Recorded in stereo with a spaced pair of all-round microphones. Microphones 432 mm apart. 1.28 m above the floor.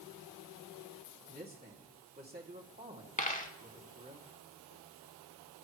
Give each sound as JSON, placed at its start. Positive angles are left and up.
{"t": 1.3, "sound": "a man speaking", "side_deg": -20, "distance_m": 3.0}
{"t": 3.2, "sound": "a dropped coin", "side_deg": 15, "distance_m": 1.2}